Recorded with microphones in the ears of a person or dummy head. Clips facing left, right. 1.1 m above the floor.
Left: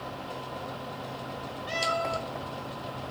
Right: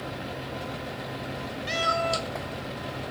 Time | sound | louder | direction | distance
1.7 | a cat meowing | right 2 dB | 30° right (ahead or behind) | 2.5 m